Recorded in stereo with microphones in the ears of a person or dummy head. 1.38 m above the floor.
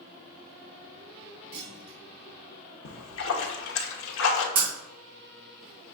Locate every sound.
1.5 s a clunk: 35° right (ahead or behind), 0.8 m
2.9 s a splash: 85° left, 1.0 m
4.5 s breaking glass: 55° right (ahead or behind), 2 m